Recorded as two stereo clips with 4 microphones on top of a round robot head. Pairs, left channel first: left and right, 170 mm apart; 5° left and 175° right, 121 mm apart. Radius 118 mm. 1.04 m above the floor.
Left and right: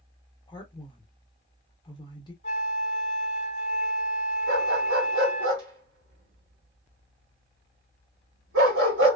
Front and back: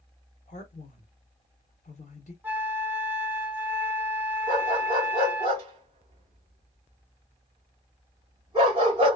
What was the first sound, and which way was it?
A man speaking, 25° left.